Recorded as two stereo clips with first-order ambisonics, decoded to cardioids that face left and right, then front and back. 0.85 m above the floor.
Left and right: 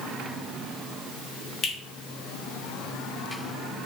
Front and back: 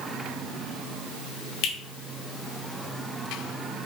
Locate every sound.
1.6 s a finger snap: 25° left, 2.5 m